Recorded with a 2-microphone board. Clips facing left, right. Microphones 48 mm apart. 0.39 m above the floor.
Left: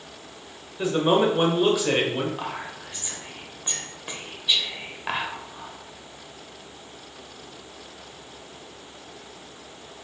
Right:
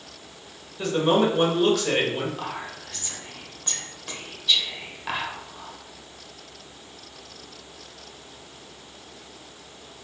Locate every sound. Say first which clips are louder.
0.8 s a man speaking: even; 15° left (ahead or behind), 1.1 m
2.4 s whispering: left 1 dB; 20° left (ahead or behind), 1.1 m